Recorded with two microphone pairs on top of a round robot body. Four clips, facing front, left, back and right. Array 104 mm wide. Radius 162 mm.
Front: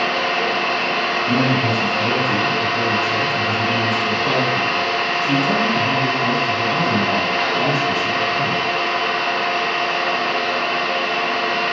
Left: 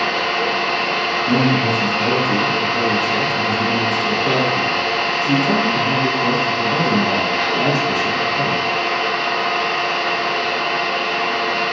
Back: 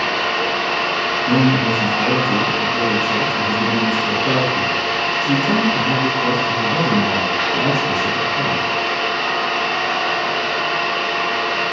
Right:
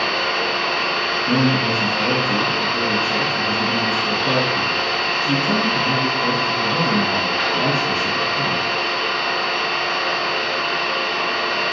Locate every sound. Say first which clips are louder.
0.0 s an engine running: left 2 dB, even; 25° left, 2.0 m
1.3 s a man speaking: left 2 dB, back 4 dB; 125° left, 1.4 m